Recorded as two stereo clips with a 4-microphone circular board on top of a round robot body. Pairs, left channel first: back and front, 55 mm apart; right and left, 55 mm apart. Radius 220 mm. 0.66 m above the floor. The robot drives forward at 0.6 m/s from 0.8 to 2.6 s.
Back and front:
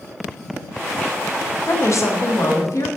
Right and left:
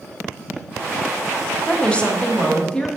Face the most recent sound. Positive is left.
turn(degrees=-165)